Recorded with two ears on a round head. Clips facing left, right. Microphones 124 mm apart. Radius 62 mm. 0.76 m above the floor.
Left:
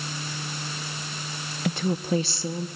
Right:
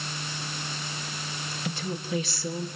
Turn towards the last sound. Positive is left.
turn(degrees=10)  # may be behind; listen again after turning